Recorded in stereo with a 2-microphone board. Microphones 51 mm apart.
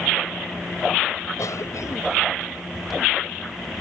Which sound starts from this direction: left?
A cough, at 1.4 s.